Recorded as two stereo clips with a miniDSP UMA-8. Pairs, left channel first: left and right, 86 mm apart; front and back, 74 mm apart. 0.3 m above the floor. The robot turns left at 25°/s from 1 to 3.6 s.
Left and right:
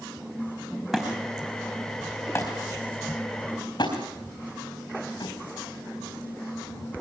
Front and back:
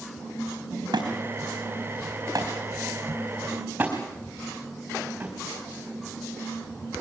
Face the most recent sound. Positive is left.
turn(degrees=110)